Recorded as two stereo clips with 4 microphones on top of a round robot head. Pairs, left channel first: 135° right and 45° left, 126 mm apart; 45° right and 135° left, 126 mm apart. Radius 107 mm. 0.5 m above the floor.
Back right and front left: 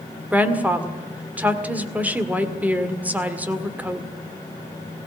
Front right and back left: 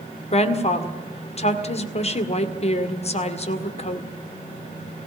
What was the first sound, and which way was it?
A woman speaking, 30° right.